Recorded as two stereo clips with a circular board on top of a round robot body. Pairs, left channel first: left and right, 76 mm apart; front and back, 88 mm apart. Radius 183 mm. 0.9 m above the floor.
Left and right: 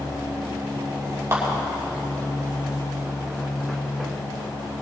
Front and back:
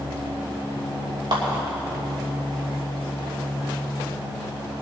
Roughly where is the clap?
Behind right.